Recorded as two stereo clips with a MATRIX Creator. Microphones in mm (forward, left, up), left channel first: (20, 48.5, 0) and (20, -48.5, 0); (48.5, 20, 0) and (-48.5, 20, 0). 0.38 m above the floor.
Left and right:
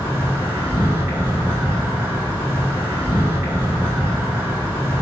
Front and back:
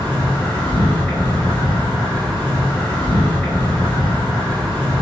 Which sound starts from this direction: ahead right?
An insect, at 0.0 s.